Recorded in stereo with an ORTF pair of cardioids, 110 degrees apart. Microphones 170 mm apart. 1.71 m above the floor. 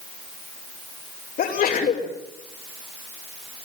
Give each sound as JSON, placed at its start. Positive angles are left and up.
{"t": 1.4, "sound": "a sneeze", "azimuth_deg": 55, "distance_m": 6.0}